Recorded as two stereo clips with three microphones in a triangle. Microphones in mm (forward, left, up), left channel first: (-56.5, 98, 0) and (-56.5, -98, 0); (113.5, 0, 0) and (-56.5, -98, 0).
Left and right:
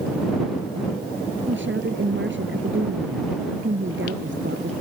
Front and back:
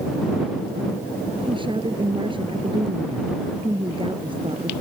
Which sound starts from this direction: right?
A woman speaking, at 1.5 s.